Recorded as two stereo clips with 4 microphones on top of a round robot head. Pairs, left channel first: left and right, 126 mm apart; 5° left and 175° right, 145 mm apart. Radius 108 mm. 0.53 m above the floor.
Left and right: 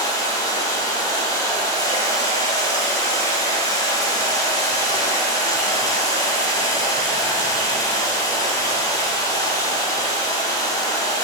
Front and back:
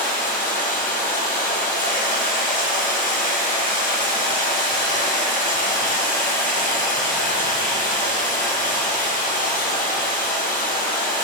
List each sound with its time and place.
0.0 s running water: 30° left, 2.5 m